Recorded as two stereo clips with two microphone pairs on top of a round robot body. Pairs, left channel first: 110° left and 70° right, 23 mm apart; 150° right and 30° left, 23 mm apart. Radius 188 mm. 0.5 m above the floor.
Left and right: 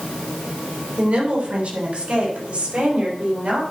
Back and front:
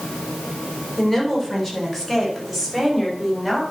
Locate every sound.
1.0 s a woman speaking: 90° right, 3 m; by 3.6 s 75° right, 4.5 m